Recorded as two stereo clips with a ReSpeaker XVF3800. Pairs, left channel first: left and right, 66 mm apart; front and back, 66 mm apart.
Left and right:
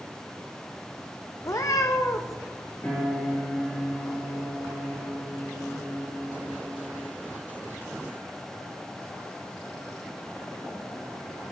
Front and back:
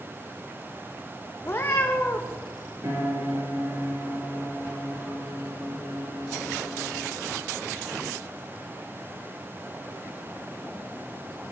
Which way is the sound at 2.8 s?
155° left.